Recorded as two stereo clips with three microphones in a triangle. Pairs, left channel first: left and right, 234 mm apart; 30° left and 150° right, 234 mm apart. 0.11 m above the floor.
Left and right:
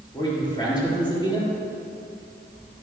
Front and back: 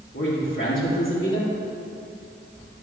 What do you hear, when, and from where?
0.1 s a man speaking: 20° left, 3.5 m